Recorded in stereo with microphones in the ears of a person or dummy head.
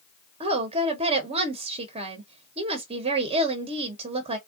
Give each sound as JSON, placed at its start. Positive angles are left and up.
{"t": 0.4, "sound": "a woman speaking", "side_deg": -35, "distance_m": 1.0}